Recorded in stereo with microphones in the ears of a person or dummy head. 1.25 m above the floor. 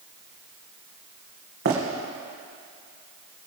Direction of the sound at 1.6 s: 55° right (ahead or behind).